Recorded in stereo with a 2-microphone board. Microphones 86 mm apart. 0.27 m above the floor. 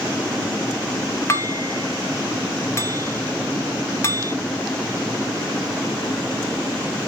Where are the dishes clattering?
30° left (ahead or behind), 1.0 m.